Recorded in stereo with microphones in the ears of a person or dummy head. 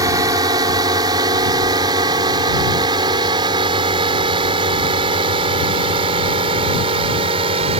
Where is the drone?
20° right (ahead or behind); by 7.8 s 30° right (ahead or behind).